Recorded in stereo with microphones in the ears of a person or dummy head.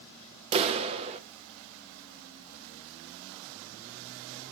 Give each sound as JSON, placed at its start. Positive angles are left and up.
{"t": 0.5, "sound": "a clap", "side_deg": -30, "distance_m": 0.7}